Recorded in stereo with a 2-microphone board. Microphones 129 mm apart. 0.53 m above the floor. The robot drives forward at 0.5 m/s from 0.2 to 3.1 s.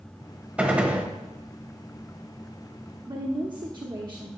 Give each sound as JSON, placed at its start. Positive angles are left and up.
{"t": 0.6, "sound": "a gunshot", "side_deg": -10, "distance_m": 1.0}
{"t": 3.1, "sound": "a woman speaking", "side_deg": -35, "distance_m": 0.9}